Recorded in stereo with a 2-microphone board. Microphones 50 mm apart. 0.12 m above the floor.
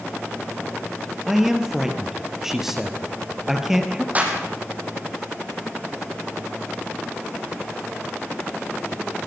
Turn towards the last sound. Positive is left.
turn(degrees=-30)  # may be behind; listen again after turning